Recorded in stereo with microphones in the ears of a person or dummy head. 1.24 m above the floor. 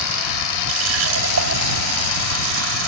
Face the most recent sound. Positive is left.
turn(degrees=-75)  # may be behind; listen again after turning